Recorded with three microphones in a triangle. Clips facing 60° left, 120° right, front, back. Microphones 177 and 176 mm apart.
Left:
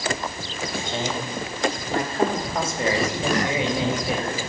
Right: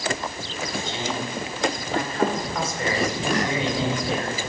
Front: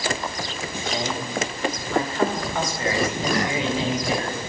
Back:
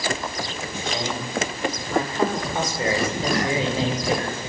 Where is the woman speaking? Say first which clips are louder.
Left 1 dB, front 1 dB; 85° left, 1.8 m; by 4.4 s 140° left, 2.5 m.